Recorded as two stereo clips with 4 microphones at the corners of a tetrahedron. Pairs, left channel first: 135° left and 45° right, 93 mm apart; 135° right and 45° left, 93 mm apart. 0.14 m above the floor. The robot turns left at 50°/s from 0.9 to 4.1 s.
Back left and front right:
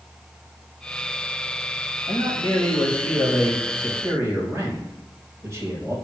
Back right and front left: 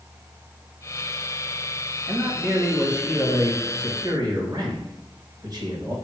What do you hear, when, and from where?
2.1 s a man speaking: 110° left, 3 m; by 6.0 s 10° left, 3 m